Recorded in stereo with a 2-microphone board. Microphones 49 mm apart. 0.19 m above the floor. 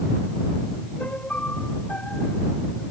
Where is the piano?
30° left (ahead or behind).